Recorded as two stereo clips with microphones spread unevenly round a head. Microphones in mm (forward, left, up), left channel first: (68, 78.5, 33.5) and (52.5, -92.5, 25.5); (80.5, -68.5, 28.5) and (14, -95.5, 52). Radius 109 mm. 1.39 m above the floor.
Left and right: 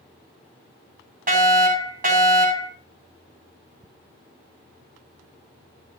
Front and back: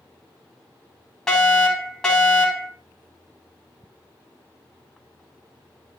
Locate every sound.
1.3 s a fire alarm: 60° right, 9.5 m